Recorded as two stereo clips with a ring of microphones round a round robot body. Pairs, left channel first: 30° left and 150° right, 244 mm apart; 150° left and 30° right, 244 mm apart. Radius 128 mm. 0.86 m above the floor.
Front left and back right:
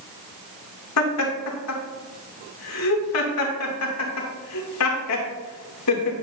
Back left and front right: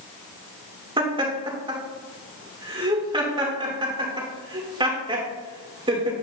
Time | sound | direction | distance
1.0 | laughter | 40° left | 3 m